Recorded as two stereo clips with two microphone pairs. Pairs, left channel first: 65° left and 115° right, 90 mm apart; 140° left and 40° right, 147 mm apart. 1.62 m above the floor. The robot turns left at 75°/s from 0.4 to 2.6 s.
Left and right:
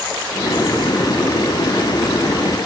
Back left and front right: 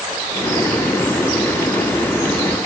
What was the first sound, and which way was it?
Only background noise.